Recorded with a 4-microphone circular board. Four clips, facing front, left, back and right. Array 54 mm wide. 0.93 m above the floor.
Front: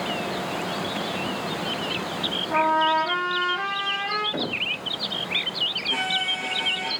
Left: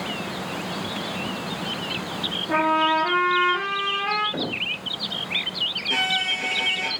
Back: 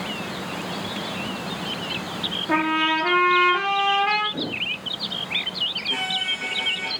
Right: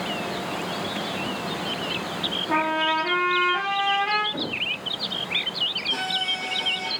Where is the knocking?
35° left, 4.5 m.